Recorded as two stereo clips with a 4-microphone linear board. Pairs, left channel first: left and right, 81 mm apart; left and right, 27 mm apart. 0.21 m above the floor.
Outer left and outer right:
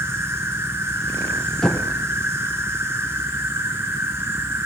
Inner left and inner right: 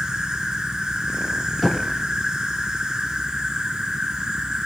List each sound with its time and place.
0.0 s an insect: 30° right (ahead or behind), 2.0 m
1.6 s knocking: 10° left (ahead or behind), 2.0 m